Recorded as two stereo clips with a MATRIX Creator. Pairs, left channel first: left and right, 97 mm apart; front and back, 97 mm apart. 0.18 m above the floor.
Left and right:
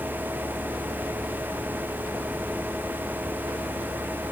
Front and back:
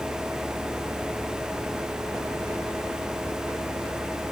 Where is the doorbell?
I don't hear a doorbell.